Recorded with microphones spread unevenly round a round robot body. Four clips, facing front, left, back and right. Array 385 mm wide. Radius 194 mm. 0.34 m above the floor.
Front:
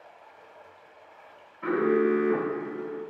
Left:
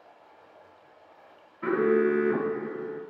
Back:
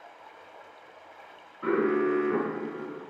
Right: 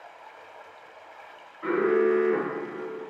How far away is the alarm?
About 2 m.